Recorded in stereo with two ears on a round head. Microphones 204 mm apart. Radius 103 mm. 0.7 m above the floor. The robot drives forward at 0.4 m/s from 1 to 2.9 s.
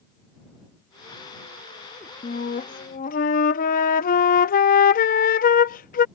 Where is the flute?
30° left (ahead or behind); by 6.0 s 35° left (ahead or behind).